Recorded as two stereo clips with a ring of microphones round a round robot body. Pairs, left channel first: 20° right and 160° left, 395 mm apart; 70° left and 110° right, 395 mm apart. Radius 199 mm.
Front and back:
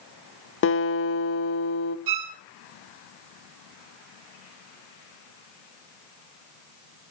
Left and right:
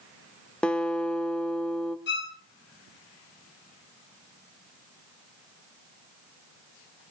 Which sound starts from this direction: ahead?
A guitar, at 0.6 s.